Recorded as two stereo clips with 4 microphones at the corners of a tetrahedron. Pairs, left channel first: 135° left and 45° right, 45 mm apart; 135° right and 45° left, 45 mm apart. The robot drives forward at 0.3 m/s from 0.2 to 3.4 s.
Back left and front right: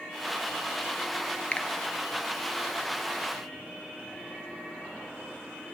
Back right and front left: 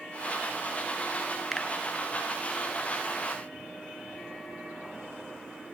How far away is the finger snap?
About 1.1 m.